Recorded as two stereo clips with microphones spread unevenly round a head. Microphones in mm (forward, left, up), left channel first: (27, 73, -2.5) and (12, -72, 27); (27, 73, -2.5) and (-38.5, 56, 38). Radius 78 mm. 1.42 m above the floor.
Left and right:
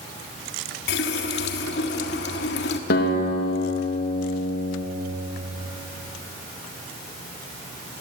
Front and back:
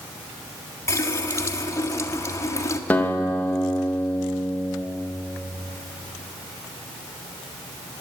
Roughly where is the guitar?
Left.